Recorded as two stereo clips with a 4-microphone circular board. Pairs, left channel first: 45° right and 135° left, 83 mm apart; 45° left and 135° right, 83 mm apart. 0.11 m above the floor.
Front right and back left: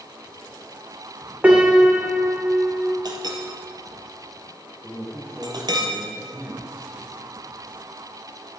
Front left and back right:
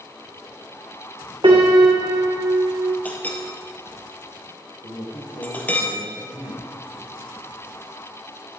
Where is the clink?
115° left, 1.7 m.